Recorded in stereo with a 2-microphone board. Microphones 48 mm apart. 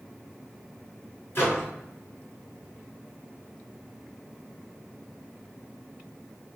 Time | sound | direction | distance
1.4 | a microwave | 50° left (ahead or behind) | 1.6 m